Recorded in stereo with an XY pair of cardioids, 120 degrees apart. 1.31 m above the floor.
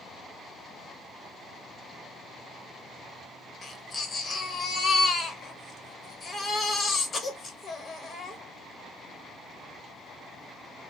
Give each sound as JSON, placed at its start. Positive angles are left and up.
{"t": 3.6, "sound": "a baby crying", "azimuth_deg": 35, "distance_m": 1.0}